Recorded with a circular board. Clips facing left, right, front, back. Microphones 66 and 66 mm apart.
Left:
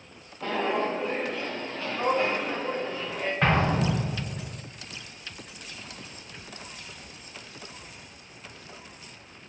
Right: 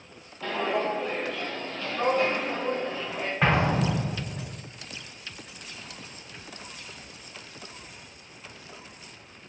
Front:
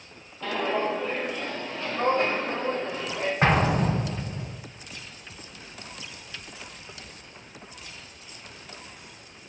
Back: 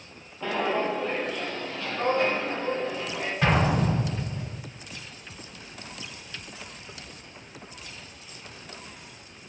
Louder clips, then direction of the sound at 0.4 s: Even, even; 115° left.